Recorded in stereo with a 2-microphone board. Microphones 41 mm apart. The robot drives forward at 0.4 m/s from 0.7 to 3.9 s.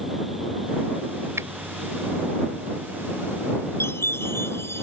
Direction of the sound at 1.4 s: 85° right.